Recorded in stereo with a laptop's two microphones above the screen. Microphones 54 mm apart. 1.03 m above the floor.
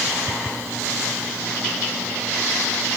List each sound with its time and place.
Only background noise.